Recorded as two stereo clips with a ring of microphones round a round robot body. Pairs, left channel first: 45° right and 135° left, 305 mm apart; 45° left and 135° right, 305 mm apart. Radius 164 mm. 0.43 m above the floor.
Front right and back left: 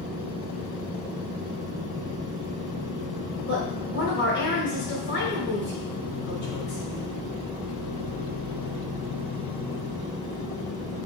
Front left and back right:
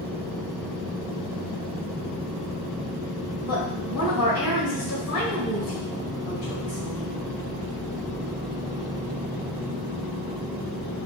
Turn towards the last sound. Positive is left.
turn(degrees=10)